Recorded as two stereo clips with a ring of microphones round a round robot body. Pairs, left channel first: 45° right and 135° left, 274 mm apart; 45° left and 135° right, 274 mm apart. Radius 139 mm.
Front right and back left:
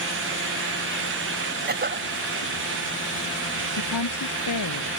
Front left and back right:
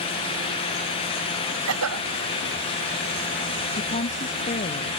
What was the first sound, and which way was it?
A cough, 170° right.